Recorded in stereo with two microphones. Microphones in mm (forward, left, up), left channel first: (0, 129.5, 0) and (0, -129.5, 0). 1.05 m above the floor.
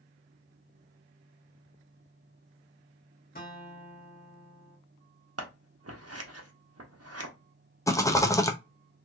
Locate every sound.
3.4 s a guitar: 35° left (ahead or behind), 1.3 m
5.4 s scissors: 65° right (ahead or behind), 0.7 m
7.9 s a rattle: 10° left (ahead or behind), 0.5 m